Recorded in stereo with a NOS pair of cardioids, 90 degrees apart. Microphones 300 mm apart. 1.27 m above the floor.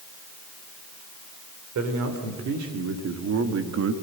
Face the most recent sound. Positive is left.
turn(degrees=-50)